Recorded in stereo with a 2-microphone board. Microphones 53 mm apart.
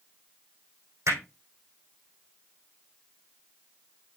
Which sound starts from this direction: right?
Hammering, at 1.1 s.